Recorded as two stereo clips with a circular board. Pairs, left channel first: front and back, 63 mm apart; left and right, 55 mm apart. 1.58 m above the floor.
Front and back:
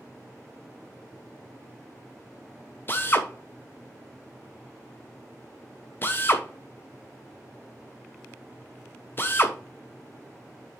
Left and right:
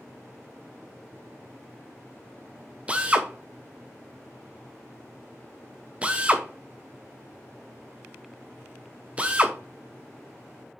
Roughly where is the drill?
Ahead right.